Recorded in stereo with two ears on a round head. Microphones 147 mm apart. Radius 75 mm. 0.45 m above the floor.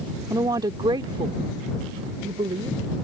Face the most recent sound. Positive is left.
turn(degrees=-30)  # may be behind; listen again after turning